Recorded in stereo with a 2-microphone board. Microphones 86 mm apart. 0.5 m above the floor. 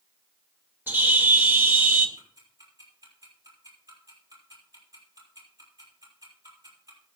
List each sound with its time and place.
0.9 s a bird: 25° right (ahead or behind), 1.6 m
2.2 s ticking: 45° right (ahead or behind), 6 m